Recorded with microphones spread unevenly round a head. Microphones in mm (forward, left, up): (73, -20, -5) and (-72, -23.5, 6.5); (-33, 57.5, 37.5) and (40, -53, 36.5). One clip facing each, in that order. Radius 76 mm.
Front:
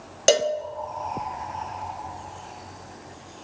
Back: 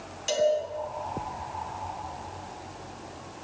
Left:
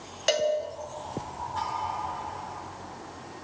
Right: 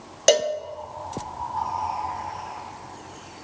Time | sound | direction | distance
0.3 | a cowbell | 10° right | 0.7 m